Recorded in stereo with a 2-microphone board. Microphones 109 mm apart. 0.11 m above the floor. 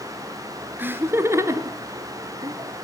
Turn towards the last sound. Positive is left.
turn(degrees=-35)  # may be behind; listen again after turning